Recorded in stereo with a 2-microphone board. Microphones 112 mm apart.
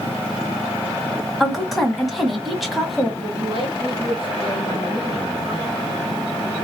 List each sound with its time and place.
1.4 s a woman speaking: centre (ahead or behind), 1.2 m
3.2 s a man speaking: 50° right (ahead or behind), 2.5 m